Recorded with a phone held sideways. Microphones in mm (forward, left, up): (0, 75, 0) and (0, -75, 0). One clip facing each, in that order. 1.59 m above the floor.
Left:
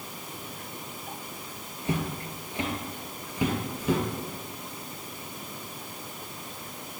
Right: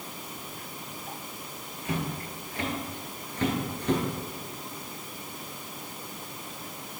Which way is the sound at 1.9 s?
30° left (ahead or behind).